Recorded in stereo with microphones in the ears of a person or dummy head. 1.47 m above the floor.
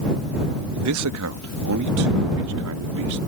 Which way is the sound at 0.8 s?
70° right (ahead or behind).